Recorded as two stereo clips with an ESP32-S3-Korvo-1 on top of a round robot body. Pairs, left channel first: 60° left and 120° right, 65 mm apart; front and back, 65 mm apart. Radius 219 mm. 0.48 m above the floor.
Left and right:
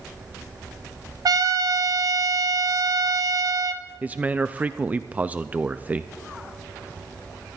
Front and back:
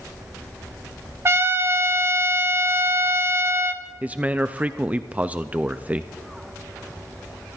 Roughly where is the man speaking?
Behind right.